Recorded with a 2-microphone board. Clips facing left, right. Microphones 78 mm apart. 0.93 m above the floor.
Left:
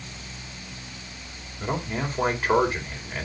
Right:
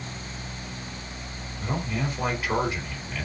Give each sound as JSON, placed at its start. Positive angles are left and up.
{"t": 1.6, "sound": "a man speaking", "side_deg": 35, "distance_m": 4.0}